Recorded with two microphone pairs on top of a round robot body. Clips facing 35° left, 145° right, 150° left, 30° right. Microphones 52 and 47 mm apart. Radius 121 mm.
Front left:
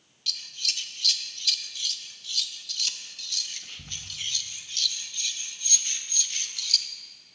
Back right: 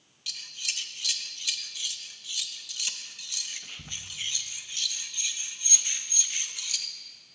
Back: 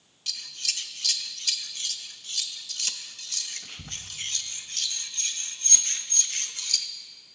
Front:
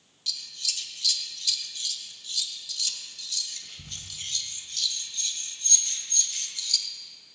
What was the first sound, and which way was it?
Scissors, 135° left.